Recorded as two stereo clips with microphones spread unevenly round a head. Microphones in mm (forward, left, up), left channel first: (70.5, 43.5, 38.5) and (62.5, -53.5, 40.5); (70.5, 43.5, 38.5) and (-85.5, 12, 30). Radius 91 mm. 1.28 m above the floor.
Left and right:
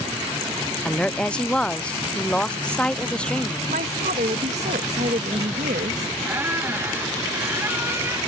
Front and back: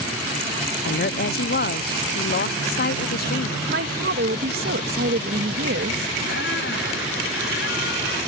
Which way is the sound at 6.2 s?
30° right.